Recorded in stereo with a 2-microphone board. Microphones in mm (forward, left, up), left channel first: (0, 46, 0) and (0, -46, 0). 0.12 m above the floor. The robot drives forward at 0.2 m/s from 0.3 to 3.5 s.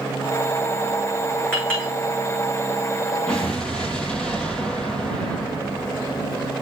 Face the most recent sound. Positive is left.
turn(degrees=10)  # may be behind; listen again after turning